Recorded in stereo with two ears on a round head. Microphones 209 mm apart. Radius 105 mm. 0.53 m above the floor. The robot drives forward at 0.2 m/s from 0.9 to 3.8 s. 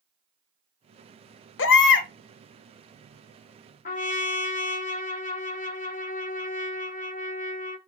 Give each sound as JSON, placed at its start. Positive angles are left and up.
{"t": 1.6, "sound": "a baby crying", "side_deg": 55, "distance_m": 0.6}
{"t": 3.9, "sound": "a trumpet", "side_deg": 35, "distance_m": 0.6}